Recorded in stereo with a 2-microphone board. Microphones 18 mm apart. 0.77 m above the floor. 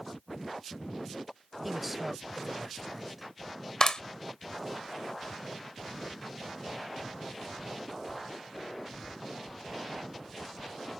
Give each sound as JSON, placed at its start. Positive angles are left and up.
{"t": 1.6, "sound": "a man speaking", "side_deg": -10}
{"t": 3.8, "sound": "a clap", "side_deg": 45}